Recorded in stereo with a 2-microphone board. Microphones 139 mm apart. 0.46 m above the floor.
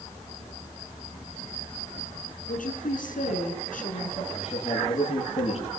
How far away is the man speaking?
About 8.5 m.